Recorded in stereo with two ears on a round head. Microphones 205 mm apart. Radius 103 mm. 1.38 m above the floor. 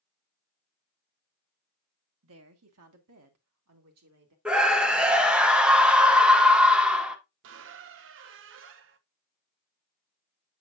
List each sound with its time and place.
2.2 s a woman speaking: 70° right (ahead or behind), 1.2 m; by 4.3 s 85° right, 2.5 m
4.5 s a scream: 5° right (ahead or behind), 1.2 m
7.4 s a squeak: 60° right (ahead or behind), 0.6 m